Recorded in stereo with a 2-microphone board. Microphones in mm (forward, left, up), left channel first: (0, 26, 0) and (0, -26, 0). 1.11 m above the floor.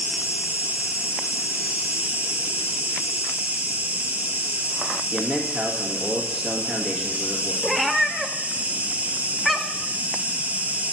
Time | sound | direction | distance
0.0 | an insect | 30° right (ahead or behind) | 0.7 m
5.1 | a man speaking | 5° right (ahead or behind) | 1.7 m
7.6 | a cat meowing | 5° left (ahead or behind) | 0.5 m